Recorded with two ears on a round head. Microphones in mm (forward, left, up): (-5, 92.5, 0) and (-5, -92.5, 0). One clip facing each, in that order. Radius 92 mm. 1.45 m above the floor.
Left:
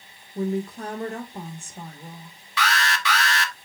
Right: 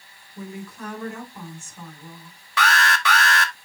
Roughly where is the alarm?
Right.